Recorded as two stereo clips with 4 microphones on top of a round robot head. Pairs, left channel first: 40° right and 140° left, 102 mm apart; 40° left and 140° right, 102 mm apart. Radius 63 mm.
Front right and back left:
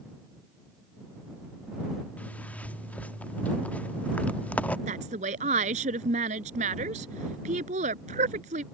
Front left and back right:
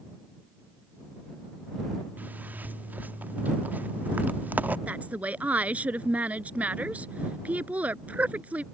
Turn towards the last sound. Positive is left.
turn(degrees=145)